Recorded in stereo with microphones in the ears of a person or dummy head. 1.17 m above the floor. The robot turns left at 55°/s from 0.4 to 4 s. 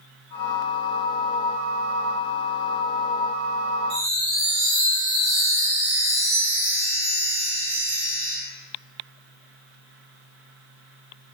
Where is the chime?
55° right (ahead or behind), 0.9 m; by 8.3 s 50° right (ahead or behind), 0.9 m.